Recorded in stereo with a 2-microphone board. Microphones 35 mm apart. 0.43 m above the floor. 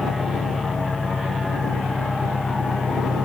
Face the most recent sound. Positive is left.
turn(degrees=45)  # may be behind; listen again after turning